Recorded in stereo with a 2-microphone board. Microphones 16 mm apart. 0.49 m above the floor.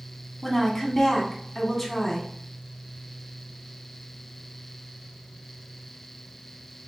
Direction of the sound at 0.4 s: 10° left (ahead or behind).